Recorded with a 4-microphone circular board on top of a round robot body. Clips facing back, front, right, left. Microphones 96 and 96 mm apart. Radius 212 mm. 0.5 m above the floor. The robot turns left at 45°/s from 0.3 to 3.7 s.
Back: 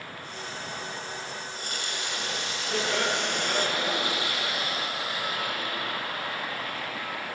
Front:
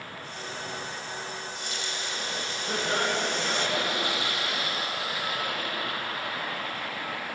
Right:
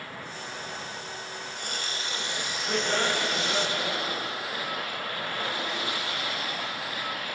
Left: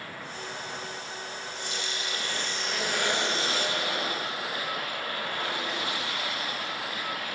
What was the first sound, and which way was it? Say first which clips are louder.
A running tap: even, even; 120° right.